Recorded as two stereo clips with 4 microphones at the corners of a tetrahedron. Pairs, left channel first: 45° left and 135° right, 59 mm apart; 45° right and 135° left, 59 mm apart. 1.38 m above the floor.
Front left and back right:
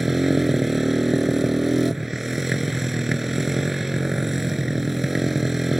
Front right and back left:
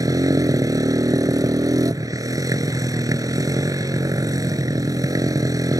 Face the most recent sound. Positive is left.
turn(degrees=140)